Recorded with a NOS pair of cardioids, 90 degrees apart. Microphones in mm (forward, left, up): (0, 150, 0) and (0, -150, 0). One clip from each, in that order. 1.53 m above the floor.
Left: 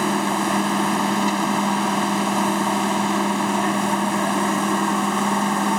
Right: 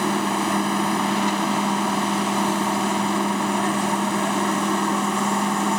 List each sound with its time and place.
0.0 s a machine running: 25° left